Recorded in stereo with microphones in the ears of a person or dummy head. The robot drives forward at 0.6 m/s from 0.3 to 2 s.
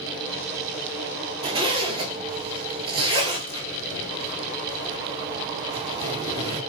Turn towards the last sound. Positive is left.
turn(degrees=-25)  # may be behind; listen again after turning